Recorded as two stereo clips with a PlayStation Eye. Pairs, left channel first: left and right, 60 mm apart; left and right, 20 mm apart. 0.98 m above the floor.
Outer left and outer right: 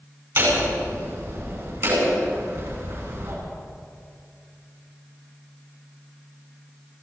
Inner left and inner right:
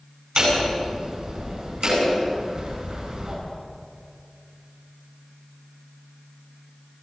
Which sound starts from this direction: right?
Hammering, at 0.4 s.